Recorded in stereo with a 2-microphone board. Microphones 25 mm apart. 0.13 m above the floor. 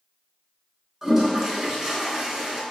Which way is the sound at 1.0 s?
25° right (ahead or behind).